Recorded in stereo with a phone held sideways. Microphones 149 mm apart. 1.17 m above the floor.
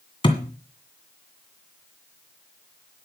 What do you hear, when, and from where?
0.2 s a thud: 30° left (ahead or behind), 2.0 m